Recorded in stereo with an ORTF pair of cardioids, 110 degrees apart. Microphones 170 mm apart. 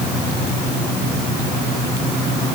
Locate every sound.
Only background noise.